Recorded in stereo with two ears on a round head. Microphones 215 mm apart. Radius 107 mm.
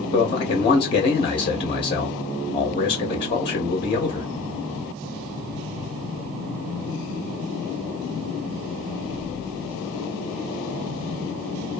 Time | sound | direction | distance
0.1 | a man speaking | 20° left (ahead or behind) | 0.6 m